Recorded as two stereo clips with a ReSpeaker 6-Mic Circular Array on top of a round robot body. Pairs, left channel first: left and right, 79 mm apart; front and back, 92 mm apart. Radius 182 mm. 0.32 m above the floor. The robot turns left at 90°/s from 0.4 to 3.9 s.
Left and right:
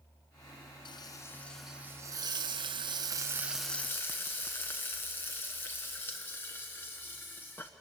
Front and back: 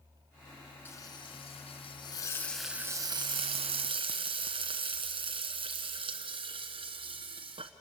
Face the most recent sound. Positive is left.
turn(degrees=155)